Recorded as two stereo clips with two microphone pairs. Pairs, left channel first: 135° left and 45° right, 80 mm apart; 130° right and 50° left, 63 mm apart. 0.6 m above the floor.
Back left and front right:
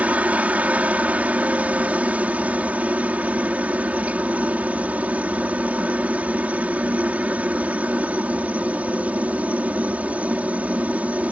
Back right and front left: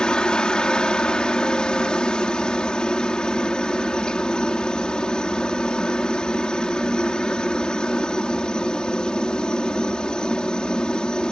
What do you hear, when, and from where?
0.0 s a helicopter: 80° right